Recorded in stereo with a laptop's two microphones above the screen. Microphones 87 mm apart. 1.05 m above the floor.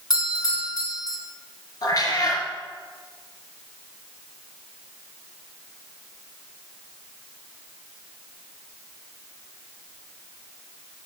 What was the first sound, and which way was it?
A doorbell, 50° left (ahead or behind).